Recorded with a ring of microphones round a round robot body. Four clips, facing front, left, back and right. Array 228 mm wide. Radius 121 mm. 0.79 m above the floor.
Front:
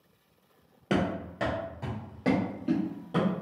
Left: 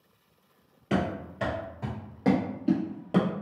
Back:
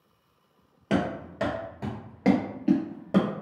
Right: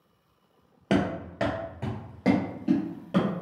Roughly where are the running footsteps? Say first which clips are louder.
Right 3 dB, back 1 dB; right.